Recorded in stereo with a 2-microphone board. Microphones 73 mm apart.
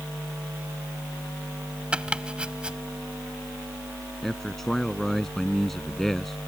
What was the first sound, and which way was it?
Chopping, 15° right (ahead or behind).